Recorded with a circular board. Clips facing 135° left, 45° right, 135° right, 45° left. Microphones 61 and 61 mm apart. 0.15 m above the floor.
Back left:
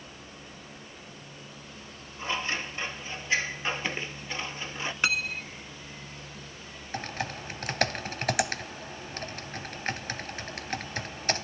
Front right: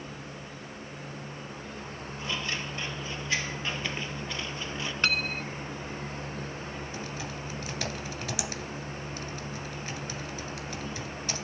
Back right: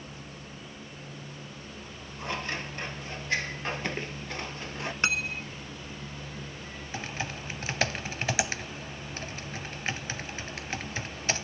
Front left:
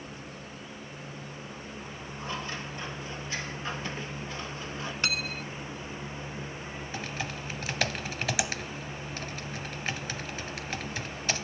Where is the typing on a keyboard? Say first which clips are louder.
Back left 2 dB, back right 1 dB; 155° left, 2.5 m.